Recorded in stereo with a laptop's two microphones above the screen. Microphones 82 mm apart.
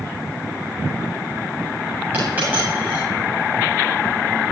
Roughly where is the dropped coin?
Centre.